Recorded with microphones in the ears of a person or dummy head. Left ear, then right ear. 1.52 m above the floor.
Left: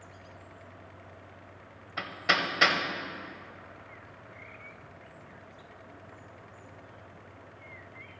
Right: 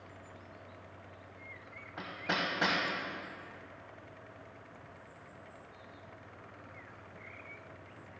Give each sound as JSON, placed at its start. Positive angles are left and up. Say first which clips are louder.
{"t": 2.0, "sound": "hammering", "louder": "left 7 dB", "side_deg": 75, "distance_m": 0.9}